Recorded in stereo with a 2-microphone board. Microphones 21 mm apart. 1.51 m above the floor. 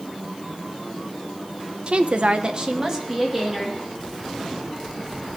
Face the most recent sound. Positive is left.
turn(degrees=-10)  # may be behind; listen again after turning